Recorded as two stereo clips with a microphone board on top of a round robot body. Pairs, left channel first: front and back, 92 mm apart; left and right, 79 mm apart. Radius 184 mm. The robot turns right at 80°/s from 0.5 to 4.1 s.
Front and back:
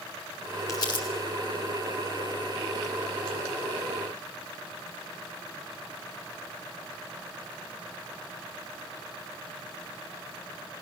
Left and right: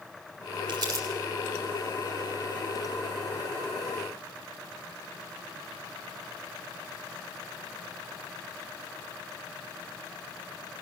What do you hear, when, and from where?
0.7 s crumpling: 60° right, 7 m; by 1.1 s 30° right, 7 m